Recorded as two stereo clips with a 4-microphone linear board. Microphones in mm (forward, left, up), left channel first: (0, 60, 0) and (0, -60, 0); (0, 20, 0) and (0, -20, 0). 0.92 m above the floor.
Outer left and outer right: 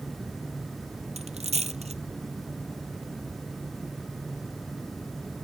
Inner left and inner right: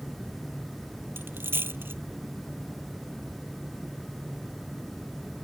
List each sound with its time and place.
1.2 s a dropped coin: 65° right (ahead or behind)